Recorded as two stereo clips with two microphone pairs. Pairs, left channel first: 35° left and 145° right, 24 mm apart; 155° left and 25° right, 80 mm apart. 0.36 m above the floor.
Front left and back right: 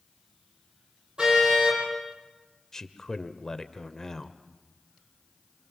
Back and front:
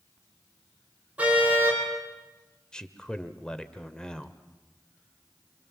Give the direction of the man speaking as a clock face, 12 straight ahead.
9 o'clock.